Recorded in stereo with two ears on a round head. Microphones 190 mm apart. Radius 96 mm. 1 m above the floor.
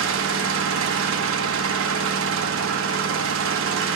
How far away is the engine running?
About 1.0 m.